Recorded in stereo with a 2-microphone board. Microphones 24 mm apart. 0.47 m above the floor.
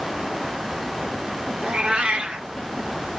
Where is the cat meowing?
65° right (ahead or behind), 0.9 m.